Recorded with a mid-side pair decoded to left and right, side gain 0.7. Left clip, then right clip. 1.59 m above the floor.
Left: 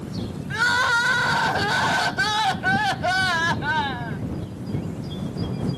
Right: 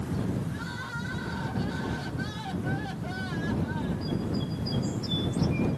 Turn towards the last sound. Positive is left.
turn(degrees=60)